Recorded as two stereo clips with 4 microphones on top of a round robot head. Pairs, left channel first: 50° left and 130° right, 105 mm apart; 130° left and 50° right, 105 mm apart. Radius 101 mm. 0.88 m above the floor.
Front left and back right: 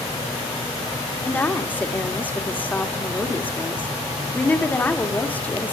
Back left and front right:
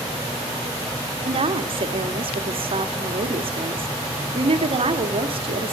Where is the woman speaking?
20° right, 1.8 m.